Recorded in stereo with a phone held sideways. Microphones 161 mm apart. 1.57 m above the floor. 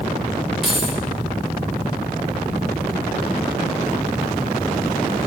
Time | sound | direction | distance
0.6 | keys jangling | centre (ahead or behind) | 4 m